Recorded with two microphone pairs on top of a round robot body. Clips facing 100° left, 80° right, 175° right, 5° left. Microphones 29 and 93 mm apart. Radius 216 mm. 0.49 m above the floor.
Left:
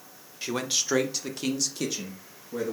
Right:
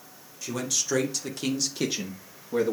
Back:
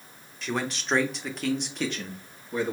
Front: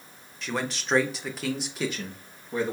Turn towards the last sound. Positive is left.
turn(degrees=-80)